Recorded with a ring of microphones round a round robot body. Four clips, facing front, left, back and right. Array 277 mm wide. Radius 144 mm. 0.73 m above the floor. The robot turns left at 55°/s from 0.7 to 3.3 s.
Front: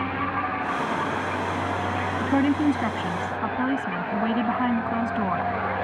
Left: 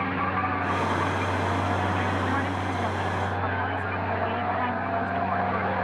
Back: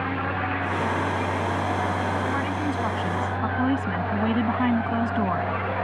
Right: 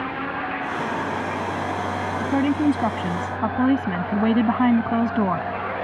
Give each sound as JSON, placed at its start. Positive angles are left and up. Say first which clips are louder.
{"t": 2.2, "sound": "a woman speaking", "louder": "right 8 dB, front 5 dB", "azimuth_deg": -35}